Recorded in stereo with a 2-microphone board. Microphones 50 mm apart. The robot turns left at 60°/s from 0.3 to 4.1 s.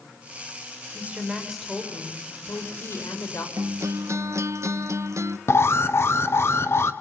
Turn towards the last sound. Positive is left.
turn(degrees=55)  # may be behind; listen again after turning